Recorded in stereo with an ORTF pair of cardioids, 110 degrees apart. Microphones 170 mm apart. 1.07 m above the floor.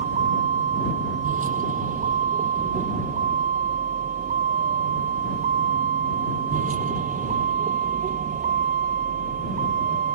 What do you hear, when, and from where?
0.0 s a vehicle: 45° right; by 10.2 s 50° right